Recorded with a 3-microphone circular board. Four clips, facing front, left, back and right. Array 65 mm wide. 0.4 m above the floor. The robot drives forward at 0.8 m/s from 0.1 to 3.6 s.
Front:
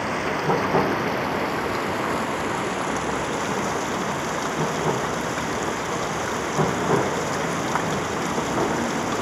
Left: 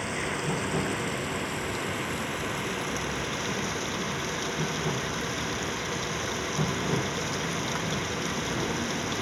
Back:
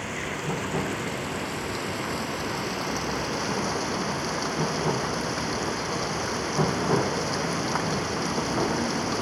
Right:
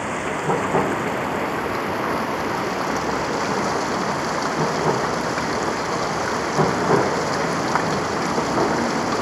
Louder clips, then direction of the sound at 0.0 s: Right 7 dB, front 7 dB; 50° right.